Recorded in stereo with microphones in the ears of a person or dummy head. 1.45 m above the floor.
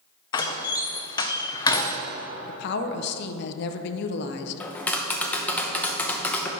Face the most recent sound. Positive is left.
turn(degrees=10)  # may be behind; listen again after turning